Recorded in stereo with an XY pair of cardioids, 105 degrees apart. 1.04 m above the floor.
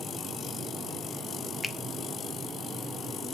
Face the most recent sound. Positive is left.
turn(degrees=10)